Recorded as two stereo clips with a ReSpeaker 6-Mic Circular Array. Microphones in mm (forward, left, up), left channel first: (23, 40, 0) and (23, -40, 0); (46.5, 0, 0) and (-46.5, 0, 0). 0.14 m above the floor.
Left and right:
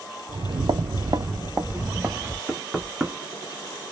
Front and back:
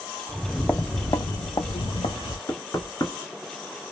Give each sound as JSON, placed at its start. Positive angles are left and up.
{"t": 0.3, "sound": "footsteps", "azimuth_deg": -100, "distance_m": 0.5}
{"t": 2.5, "sound": "knocking", "azimuth_deg": -15, "distance_m": 1.2}